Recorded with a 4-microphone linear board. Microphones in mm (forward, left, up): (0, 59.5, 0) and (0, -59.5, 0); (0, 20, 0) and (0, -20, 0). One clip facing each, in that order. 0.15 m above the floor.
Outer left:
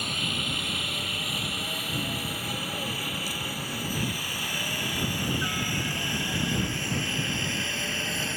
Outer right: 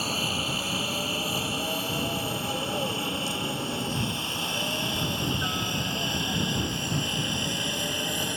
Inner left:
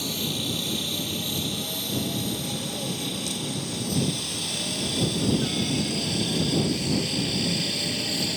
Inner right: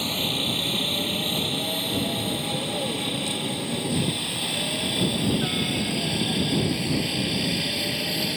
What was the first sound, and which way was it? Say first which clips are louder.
A helicopter: outer right 3 dB, inner right 3 dB; 35° right (ahead or behind).